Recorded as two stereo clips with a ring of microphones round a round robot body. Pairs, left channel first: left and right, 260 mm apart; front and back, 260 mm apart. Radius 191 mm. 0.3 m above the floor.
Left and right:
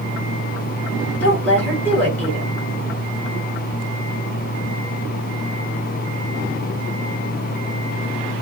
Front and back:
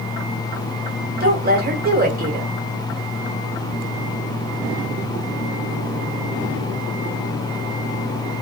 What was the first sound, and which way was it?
A woman speaking, 170° left.